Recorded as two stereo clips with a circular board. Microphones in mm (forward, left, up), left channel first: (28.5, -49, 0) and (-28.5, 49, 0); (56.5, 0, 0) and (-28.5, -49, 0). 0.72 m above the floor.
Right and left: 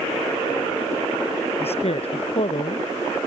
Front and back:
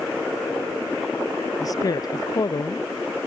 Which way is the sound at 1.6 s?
25° right.